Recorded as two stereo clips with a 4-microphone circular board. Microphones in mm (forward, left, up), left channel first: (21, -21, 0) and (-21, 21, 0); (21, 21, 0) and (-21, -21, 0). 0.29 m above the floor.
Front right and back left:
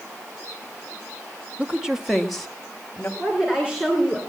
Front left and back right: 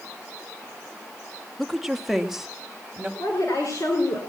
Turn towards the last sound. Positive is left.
turn(degrees=60)